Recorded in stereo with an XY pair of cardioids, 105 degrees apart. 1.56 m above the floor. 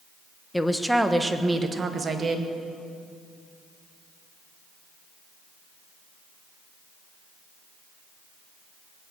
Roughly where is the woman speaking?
Ahead.